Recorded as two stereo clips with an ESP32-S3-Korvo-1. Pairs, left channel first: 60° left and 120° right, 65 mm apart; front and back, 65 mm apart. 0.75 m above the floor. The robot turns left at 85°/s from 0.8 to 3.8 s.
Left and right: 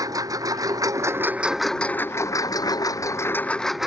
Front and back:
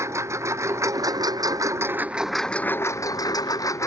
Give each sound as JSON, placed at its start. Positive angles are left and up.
{"t": 0.0, "sound": "a lawn mower", "azimuth_deg": -140}